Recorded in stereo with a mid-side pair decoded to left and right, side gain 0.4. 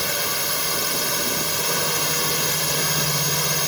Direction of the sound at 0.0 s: 5° right.